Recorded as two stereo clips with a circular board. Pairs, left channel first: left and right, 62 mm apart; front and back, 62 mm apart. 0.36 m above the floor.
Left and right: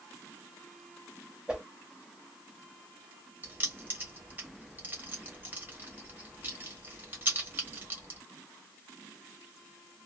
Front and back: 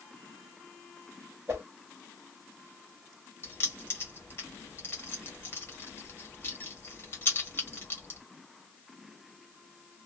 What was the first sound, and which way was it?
A whoosh, 165° right.